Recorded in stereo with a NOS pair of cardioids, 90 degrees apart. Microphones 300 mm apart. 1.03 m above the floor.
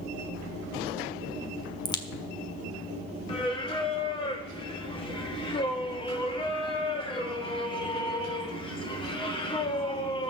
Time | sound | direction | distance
1.9 | a crack | 15° left | 1.5 m
3.3 | singing | 15° left | 2.0 m